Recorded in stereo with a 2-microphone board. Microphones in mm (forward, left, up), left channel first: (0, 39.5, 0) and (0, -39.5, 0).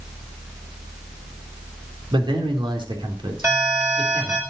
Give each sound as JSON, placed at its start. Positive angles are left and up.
{"t": 2.1, "sound": "a man speaking", "side_deg": -80, "distance_m": 3.0}
{"t": 3.4, "sound": "an alarm", "side_deg": -35, "distance_m": 8.0}